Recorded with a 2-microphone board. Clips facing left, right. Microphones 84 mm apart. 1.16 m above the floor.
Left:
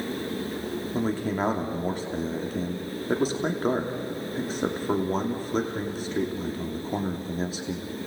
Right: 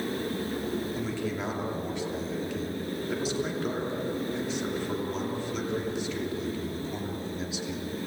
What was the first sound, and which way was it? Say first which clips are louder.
A man speaking: left 5 dB; 40° left (ahead or behind).